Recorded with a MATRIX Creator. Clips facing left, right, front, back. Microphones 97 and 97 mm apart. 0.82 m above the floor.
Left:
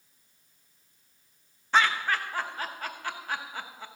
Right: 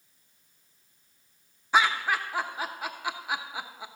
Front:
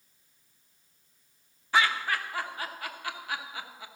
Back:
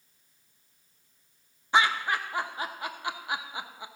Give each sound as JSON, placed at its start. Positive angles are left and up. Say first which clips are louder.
{"t": 1.7, "sound": "laughter", "louder": "right 1 dB, back 2 dB", "azimuth_deg": -155, "distance_m": 0.8}